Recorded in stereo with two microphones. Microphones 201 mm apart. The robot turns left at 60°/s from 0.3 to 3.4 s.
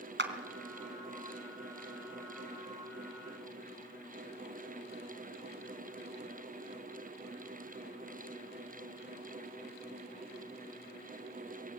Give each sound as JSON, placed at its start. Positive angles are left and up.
{"t": 0.2, "sound": "a clap", "side_deg": -65, "distance_m": 2.5}